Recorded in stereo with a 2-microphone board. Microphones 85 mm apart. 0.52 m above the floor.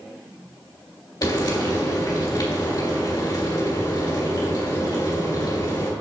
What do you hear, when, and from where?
1.2 s frying: 50° left (ahead or behind), 2 m